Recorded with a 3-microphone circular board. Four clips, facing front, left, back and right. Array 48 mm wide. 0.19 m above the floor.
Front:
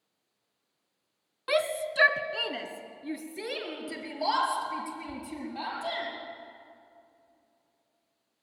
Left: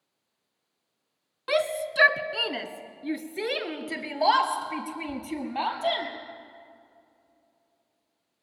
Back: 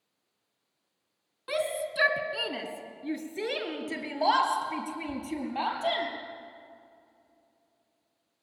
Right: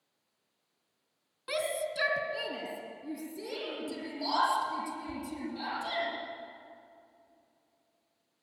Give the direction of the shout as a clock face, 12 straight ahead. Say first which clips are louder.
Left 7 dB, front 3 dB; 10 o'clock.